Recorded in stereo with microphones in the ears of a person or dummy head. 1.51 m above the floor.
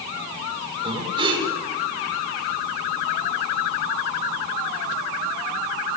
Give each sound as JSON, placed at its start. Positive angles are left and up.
{"t": 0.8, "sound": "breathing", "side_deg": -25, "distance_m": 6.0}